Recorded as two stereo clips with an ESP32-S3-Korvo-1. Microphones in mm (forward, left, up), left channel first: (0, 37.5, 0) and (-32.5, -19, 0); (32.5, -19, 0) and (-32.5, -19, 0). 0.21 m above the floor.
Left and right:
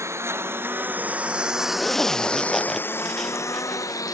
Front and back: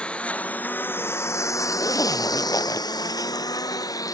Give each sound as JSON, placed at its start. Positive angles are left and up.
{"t": 0.0, "sound": "a lawn mower", "azimuth_deg": -75}
{"t": 1.8, "sound": "a zipper", "azimuth_deg": -25}